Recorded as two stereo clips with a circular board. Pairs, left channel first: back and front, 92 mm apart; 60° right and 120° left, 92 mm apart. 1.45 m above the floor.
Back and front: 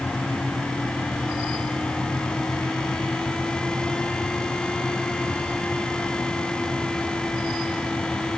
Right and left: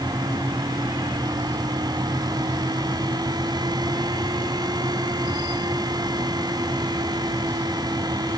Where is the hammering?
No hammering in this recording.